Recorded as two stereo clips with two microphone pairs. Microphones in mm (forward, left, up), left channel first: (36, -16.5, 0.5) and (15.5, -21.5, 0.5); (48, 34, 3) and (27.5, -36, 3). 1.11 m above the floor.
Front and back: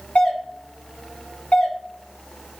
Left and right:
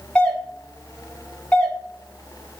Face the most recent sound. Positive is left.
turn(degrees=-5)